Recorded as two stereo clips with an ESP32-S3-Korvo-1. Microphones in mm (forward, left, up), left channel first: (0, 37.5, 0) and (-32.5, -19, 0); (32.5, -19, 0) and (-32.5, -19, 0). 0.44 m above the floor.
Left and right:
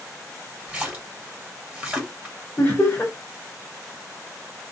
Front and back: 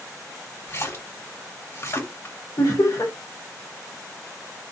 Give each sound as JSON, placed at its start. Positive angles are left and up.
{"t": 0.7, "sound": "a splash", "azimuth_deg": -45, "distance_m": 1.6}
{"t": 2.6, "sound": "laughter", "azimuth_deg": 10, "distance_m": 1.2}